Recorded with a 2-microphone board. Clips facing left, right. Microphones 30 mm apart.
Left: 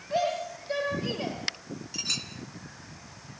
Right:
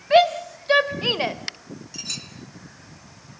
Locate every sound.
0.1 s a shout: 70° right (ahead or behind), 3 m; by 1.4 s 55° right (ahead or behind), 1.6 m
1.9 s a clink: 10° left (ahead or behind), 3 m